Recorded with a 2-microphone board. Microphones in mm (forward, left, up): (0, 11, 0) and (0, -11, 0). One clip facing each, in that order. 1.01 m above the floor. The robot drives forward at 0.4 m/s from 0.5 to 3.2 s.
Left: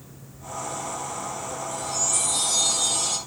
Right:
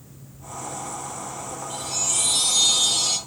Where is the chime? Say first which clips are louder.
Right 1 dB; 60° right (ahead or behind), 1.1 m; by 3.2 s 55° right (ahead or behind), 1.2 m.